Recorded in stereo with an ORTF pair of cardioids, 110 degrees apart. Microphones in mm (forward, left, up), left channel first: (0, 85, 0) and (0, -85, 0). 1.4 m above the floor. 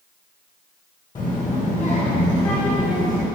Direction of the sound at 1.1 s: 25° left.